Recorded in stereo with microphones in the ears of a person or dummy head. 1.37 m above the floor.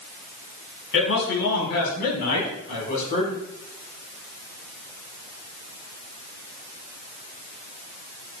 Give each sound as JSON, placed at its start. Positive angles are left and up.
{"t": 0.9, "sound": "a man speaking", "side_deg": 60, "distance_m": 5.0}